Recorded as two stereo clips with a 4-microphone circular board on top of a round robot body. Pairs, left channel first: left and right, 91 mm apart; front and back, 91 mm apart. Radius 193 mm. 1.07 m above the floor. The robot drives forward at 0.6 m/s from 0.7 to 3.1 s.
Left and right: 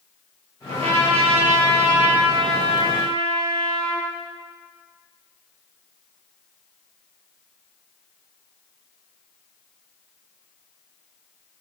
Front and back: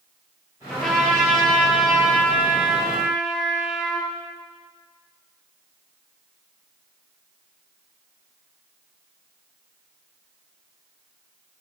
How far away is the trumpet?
About 7 m.